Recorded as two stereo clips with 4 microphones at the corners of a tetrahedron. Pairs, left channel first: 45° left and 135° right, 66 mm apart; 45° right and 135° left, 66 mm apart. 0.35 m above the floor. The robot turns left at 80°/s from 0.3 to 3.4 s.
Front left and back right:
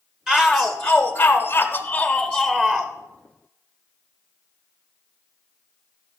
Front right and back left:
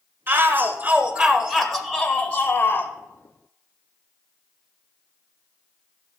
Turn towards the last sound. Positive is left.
turn(degrees=-90)